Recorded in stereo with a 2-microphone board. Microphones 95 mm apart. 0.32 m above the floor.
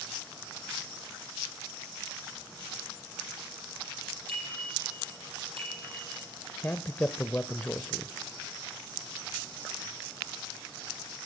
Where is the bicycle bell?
75° right (ahead or behind), 8 m; by 6.2 s 80° right, 7.5 m.